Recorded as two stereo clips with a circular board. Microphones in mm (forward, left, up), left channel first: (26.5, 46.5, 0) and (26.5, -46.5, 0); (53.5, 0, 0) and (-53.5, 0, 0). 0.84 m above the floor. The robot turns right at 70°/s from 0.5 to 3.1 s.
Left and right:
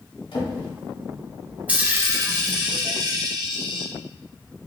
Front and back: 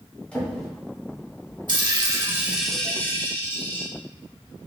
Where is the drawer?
80° left, 1.3 m; by 0.7 s 90° left, 1.3 m.